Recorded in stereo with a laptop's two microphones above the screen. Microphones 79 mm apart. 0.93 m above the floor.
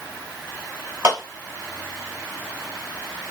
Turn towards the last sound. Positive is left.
turn(degrees=-40)  # may be behind; listen again after turning